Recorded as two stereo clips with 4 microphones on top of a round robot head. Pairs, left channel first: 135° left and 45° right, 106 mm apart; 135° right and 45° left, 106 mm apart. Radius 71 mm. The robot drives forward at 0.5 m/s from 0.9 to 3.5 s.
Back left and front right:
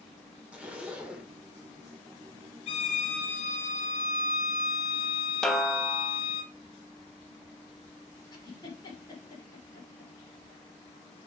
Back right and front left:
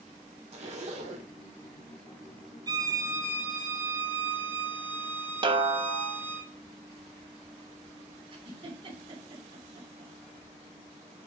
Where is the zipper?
35° left, 2 m; by 1.3 s 40° left, 1.9 m.